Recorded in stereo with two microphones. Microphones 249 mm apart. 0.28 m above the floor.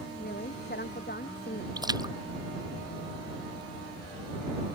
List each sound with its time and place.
0.2 s a woman speaking: 40° left (ahead or behind)
1.8 s a splash: 15° right (ahead or behind)